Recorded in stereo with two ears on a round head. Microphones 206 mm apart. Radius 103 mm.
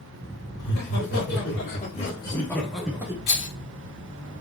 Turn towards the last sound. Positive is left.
turn(degrees=50)  # may be behind; listen again after turning